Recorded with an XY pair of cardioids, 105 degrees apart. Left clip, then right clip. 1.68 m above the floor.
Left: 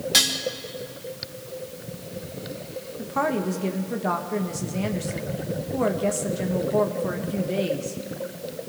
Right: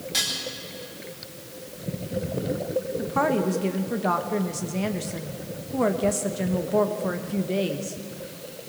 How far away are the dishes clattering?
About 2 m.